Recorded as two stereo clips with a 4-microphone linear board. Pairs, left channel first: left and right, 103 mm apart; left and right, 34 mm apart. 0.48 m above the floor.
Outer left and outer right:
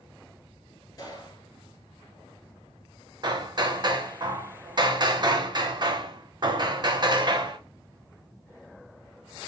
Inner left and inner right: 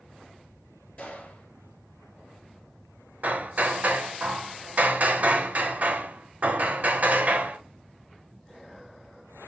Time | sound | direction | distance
1.0 | a gunshot | 35° left (ahead or behind) | 1.3 m
3.2 | hammering | 45° right (ahead or behind) | 0.5 m